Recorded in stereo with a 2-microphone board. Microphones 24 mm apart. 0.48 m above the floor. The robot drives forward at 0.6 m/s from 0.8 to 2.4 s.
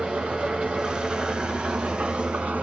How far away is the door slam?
I don't hear a door slam.